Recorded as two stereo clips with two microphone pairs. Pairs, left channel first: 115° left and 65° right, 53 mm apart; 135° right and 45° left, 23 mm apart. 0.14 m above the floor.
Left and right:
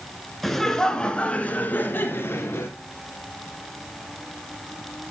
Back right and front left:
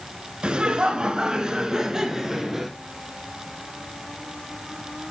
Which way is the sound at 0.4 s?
35° left.